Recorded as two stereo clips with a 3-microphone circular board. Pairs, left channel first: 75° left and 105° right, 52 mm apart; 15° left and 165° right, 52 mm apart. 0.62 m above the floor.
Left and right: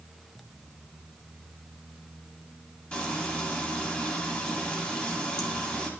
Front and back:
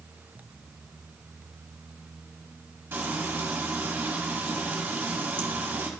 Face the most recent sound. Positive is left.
turn(degrees=140)